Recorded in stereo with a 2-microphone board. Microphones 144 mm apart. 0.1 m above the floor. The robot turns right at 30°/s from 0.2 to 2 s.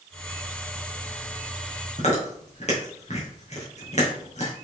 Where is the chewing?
50° left (ahead or behind), 3.5 m.